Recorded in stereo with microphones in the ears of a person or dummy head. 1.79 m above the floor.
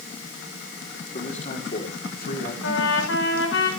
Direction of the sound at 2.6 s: 80° left.